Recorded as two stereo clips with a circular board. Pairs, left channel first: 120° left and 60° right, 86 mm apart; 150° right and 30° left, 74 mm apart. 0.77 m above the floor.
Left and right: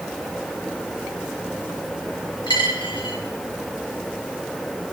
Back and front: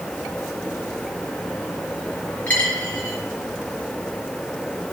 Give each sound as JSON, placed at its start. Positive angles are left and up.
{"t": 2.5, "sound": "a dropped coin", "azimuth_deg": 140, "distance_m": 6.0}